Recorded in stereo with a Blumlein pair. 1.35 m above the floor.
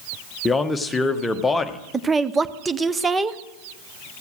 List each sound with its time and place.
0.5 s a man speaking: 10° left, 1.0 m
1.9 s a woman speaking: 15° right, 0.6 m